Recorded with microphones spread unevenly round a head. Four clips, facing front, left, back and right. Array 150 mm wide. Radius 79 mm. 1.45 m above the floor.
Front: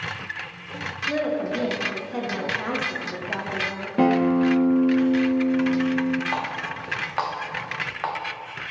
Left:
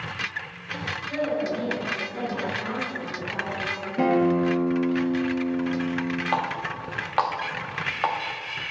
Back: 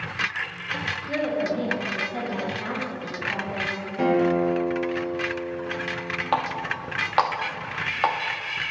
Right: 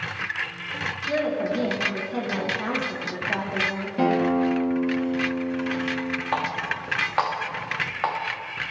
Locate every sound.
1.1 s a woman speaking: 40° right, 1.4 m
4.0 s a guitar: 5° left, 1.1 m
6.3 s a running tap: 165° left, 0.6 m